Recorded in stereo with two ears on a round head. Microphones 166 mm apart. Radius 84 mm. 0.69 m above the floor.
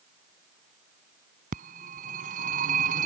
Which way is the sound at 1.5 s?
50° right (ahead or behind).